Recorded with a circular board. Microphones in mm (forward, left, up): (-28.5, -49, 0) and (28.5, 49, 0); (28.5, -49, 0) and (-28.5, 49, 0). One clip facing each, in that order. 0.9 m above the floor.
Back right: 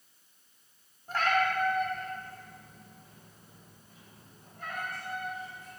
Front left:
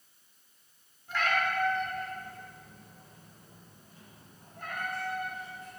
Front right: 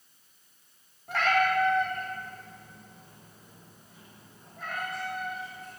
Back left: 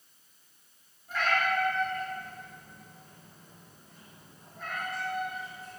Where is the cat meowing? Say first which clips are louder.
Back right 3 dB, front right 4 dB; 75° right, 1.0 m; by 5.8 s 35° left, 3.5 m.